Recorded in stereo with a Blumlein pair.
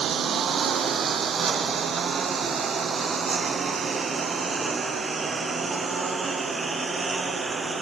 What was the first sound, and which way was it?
A lawn mower, 25° right.